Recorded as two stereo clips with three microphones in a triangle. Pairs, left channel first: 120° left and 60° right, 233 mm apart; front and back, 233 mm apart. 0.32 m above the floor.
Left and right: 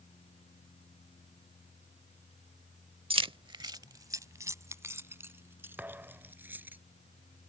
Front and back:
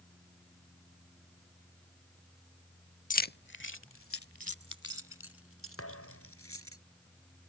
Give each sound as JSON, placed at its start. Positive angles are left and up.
{"t": 3.1, "sound": "keys jangling", "azimuth_deg": -10}
{"t": 5.8, "sound": "a thud", "azimuth_deg": 25}